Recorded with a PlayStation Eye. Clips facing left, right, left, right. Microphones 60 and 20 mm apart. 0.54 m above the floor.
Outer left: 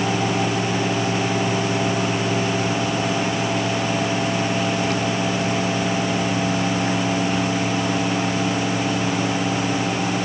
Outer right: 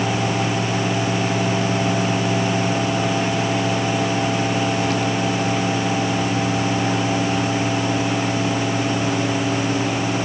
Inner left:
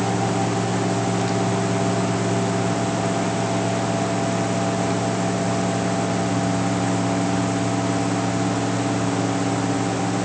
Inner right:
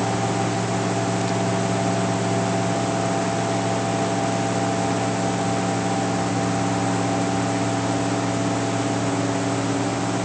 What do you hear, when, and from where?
Only background noise.